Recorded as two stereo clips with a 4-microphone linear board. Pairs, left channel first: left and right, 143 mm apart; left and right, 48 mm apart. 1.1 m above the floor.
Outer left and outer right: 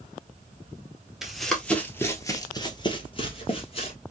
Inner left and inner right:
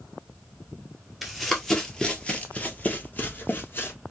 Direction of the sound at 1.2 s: 5° right (ahead or behind).